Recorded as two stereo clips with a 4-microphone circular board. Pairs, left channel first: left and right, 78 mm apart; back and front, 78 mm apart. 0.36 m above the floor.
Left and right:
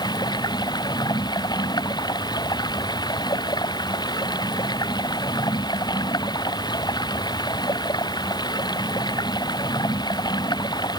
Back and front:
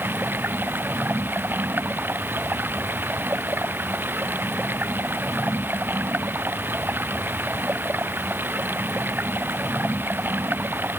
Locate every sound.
0.0 s running water: 65° left